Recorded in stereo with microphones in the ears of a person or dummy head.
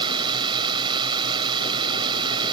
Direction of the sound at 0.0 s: 25° right (ahead or behind).